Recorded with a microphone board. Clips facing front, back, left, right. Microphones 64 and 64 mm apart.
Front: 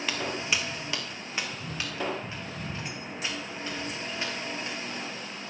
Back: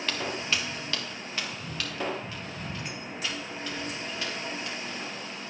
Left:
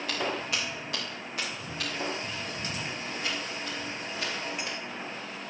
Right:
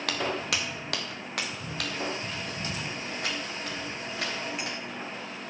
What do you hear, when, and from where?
0.1 s footsteps: 80° right, 2.0 m; by 5.0 s 60° right, 6 m